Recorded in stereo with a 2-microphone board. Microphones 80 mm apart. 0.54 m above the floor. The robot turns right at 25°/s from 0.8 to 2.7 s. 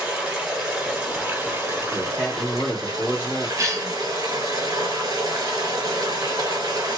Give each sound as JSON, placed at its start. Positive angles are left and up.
{"t": 0.0, "sound": "running water", "azimuth_deg": -170, "distance_m": 1.3}
{"t": 1.9, "sound": "a man speaking", "side_deg": -20, "distance_m": 1.3}
{"t": 3.6, "sound": "a cough", "side_deg": -40, "distance_m": 0.8}